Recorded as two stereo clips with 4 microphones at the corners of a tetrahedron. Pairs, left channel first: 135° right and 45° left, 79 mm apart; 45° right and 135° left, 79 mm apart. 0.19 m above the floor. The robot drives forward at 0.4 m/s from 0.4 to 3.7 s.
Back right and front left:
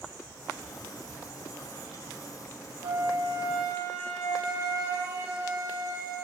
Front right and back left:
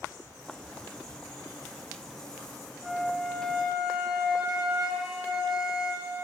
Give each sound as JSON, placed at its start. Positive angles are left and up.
{"t": 2.8, "sound": "a flute", "azimuth_deg": 45, "distance_m": 7.5}